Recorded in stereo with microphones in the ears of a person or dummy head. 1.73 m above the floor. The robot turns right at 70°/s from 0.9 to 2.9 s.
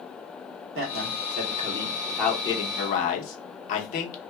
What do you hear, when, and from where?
0.8 s a man speaking: 80° right, 1.0 m; by 4.2 s 60° left, 1.0 m